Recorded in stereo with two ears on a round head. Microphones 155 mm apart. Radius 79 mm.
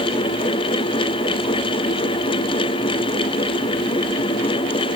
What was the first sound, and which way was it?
Only background noise.